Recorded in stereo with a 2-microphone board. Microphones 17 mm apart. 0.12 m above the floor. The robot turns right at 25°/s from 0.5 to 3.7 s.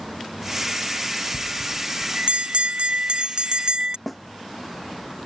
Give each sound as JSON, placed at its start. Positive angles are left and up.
{"t": 1.3, "sound": "a bell", "azimuth_deg": -110}
{"t": 4.1, "sound": "a snare drum", "side_deg": 0}